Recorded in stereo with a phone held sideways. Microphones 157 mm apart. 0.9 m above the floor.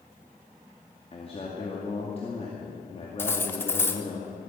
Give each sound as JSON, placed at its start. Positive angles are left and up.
{"t": 1.1, "sound": "a man speaking", "side_deg": 40, "distance_m": 2.0}
{"t": 3.2, "sound": "cutlery clinking", "side_deg": 15, "distance_m": 1.1}